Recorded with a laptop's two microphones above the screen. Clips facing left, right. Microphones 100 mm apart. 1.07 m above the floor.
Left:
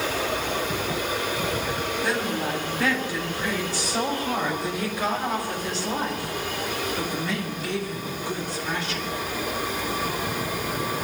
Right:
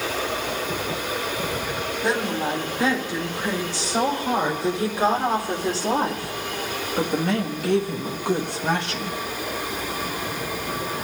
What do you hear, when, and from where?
2.0 s a woman speaking: 15° right (ahead or behind), 4.5 m; by 9.2 s 70° right (ahead or behind), 1.8 m